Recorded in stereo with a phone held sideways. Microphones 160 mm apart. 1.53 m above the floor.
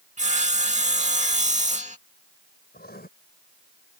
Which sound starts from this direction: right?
Sawing, at 0.2 s.